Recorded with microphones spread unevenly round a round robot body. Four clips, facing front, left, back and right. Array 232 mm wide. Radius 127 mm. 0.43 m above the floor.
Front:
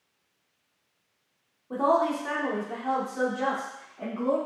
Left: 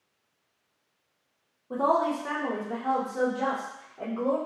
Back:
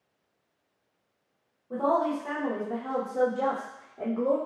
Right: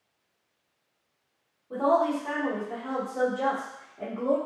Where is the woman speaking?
35° left, 1.3 m; by 4.4 s 165° left, 1.5 m.